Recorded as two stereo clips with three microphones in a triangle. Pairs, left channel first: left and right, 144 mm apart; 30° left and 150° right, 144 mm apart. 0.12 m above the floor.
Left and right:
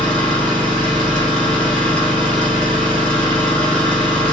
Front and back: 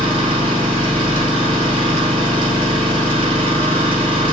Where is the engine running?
170° left, 1.9 m.